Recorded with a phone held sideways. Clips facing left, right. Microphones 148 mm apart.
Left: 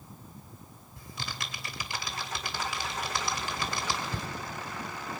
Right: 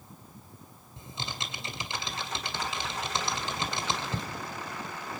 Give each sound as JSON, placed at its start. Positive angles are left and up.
{"t": 1.0, "sound": "typing on a keyboard", "side_deg": -25, "distance_m": 2.0}